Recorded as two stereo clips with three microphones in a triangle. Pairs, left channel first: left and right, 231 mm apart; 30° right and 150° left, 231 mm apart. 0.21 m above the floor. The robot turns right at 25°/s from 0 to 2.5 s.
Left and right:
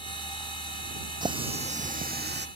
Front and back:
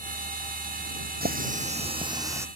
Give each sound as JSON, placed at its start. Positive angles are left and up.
{"t": 1.2, "sound": "a running tap", "azimuth_deg": -160}